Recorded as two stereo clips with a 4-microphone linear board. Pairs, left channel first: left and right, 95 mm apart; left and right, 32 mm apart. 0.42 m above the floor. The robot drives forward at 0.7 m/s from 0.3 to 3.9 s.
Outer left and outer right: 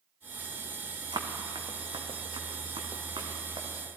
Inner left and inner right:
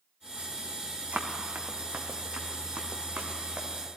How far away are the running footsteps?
About 1.8 m.